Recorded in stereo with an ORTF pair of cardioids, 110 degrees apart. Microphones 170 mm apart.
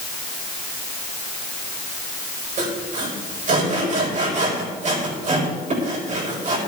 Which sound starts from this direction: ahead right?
Sawing, at 2.6 s.